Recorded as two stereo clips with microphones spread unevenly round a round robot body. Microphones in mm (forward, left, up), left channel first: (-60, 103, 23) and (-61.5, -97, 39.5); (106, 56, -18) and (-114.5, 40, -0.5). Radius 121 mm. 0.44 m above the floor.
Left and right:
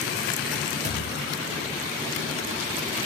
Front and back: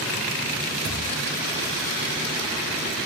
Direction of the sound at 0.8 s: 140° right.